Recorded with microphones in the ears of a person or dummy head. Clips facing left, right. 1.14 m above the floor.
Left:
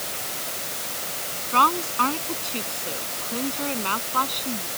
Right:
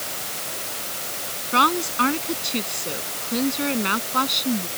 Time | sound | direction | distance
1.5 | a woman speaking | 20° right (ahead or behind) | ?